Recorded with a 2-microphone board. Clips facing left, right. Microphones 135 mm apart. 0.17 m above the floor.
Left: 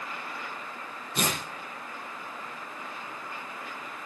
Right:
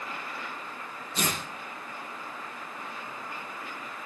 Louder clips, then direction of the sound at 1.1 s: Left 1 dB; 55° left (ahead or behind).